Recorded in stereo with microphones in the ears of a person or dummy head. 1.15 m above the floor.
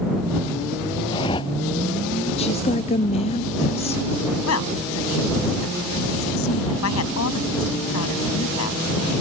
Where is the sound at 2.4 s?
30° left (ahead or behind).